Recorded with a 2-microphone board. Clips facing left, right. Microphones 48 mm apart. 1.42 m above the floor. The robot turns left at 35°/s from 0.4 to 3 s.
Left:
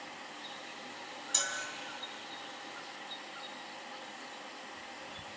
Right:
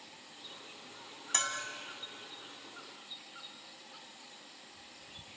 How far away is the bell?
About 3 m.